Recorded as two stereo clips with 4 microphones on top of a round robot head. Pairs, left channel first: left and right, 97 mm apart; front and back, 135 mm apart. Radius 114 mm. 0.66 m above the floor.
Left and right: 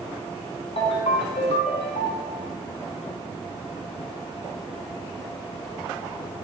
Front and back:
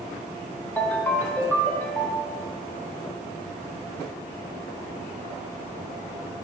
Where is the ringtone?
75° left, 1.3 m.